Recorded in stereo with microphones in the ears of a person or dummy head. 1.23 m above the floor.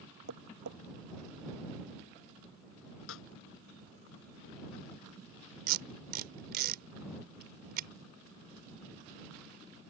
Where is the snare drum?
85° left.